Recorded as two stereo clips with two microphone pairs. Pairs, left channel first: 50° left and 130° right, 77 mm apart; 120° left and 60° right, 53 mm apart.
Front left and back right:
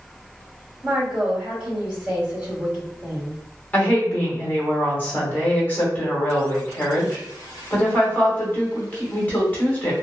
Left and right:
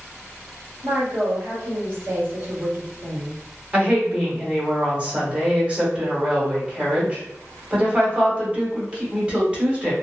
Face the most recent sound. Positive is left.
turn(degrees=-5)